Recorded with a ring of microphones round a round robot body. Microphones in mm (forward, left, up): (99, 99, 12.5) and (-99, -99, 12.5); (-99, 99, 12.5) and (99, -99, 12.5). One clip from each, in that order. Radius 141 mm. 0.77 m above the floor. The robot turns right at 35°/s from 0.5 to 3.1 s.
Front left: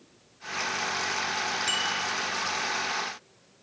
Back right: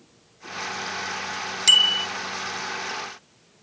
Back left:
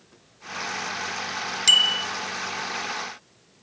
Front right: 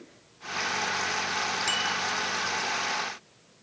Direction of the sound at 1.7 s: Straight behind.